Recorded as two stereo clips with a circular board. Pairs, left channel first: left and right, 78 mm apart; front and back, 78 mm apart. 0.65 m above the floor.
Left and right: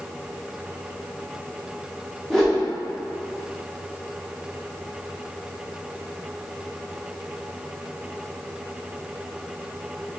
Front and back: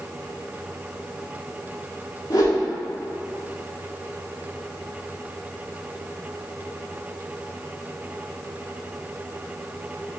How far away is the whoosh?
About 1.0 m.